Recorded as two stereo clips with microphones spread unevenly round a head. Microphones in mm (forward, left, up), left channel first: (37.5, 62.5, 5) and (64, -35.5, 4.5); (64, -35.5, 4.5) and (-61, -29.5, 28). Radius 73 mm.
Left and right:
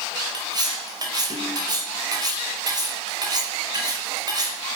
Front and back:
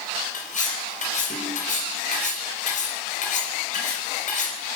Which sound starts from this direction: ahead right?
Cutlery clinking, at 0.3 s.